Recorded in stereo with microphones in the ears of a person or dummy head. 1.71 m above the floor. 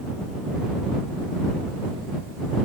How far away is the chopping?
No chopping in this recording.